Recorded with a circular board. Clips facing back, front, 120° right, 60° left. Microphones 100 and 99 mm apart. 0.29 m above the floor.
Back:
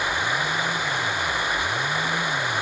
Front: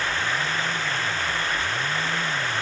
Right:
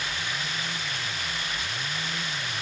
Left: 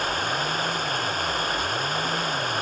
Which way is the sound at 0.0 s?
100° left.